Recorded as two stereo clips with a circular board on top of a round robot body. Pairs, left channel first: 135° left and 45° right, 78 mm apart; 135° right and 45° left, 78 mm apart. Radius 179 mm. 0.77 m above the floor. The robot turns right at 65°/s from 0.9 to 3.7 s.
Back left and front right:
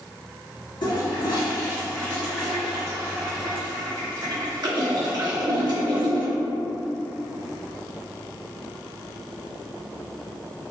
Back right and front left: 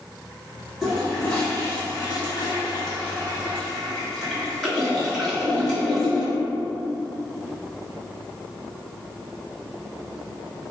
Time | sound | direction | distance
0.8 | a toilet flushing | 130° left | 1.6 m